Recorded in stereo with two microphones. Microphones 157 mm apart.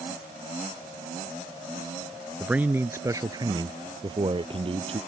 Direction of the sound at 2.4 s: 5° right (ahead or behind).